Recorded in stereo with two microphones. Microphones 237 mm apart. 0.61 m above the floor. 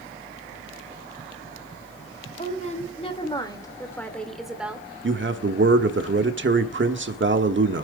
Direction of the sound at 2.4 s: 35° left (ahead or behind).